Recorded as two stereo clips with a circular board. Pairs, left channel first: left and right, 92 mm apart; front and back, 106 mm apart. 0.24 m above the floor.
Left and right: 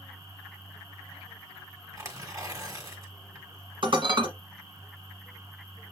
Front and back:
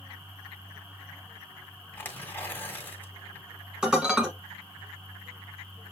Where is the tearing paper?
60° right, 1.5 m.